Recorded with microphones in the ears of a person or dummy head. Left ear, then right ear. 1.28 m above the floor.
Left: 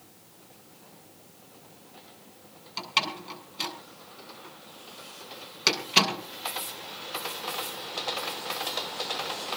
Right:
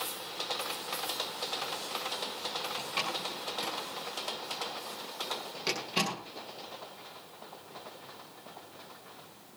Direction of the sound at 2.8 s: 45° left (ahead or behind).